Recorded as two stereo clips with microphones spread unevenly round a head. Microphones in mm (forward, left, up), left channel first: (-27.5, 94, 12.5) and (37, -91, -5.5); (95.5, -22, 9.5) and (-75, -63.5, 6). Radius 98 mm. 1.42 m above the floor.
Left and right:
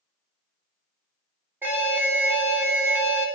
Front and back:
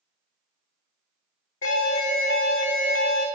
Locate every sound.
1.6 s an alarm: 10° left, 3 m